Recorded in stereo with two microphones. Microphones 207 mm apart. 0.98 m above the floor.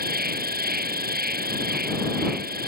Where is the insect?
45° right (ahead or behind).